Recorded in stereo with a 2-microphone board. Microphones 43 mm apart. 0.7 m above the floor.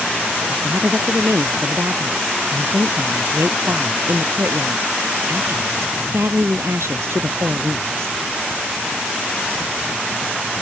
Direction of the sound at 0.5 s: 80° right.